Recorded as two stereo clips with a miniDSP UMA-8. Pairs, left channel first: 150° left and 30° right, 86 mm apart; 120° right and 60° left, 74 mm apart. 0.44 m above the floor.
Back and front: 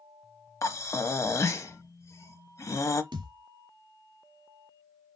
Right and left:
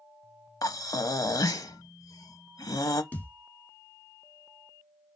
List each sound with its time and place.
0.6 s breathing: 155° right, 0.6 m
3.1 s a thud: 55° right, 0.8 m